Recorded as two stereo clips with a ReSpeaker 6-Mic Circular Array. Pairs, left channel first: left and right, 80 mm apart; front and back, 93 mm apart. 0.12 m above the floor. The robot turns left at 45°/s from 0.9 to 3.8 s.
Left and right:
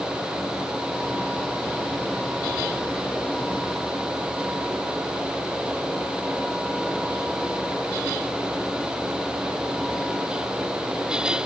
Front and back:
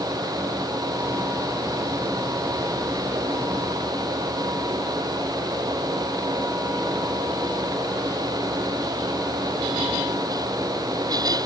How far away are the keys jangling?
I don't hear keys jangling.